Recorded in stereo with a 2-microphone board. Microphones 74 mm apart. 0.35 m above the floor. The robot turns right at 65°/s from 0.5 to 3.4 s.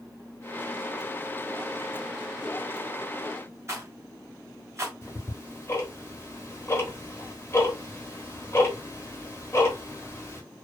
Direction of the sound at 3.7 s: 35° right (ahead or behind).